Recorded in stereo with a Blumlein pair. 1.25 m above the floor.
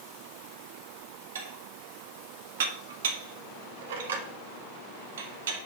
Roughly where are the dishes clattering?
Ahead right.